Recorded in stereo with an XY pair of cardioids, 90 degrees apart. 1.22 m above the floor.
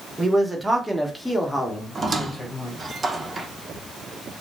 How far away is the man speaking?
About 1.0 m.